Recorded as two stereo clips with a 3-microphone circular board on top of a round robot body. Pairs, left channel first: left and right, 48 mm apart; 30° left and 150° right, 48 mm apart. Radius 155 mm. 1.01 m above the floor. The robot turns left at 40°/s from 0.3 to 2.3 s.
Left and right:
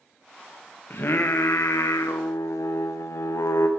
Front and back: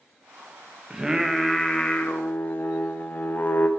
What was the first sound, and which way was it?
Singing, 135° left.